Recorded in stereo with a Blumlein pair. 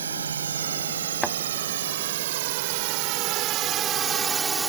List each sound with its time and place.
0.0 s a drone: 70° right; by 4.7 s 10° right
1.2 s a thud: straight ahead